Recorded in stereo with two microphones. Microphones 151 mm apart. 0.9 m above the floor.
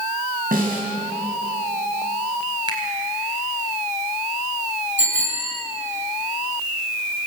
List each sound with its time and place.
0.5 s a snare drum: 75° right (ahead or behind), 5 m
2.7 s a finger snap: 30° right (ahead or behind), 4 m
5.0 s a bicycle bell: 50° right (ahead or behind), 8 m